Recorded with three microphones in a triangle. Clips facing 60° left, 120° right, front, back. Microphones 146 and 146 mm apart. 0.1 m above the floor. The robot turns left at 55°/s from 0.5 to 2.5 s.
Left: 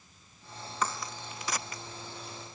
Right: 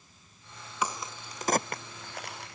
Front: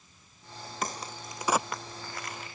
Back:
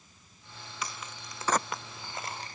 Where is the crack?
40° right; by 2.6 s 135° right.